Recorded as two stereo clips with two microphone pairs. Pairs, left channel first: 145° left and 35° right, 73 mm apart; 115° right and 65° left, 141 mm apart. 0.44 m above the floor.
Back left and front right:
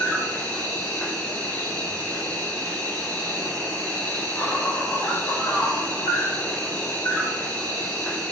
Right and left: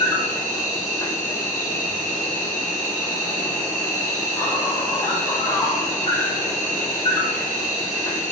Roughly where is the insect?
Behind.